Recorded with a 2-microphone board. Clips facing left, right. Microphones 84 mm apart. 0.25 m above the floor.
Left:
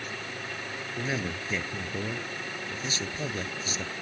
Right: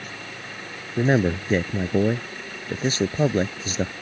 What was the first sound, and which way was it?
A man speaking, 50° right (ahead or behind).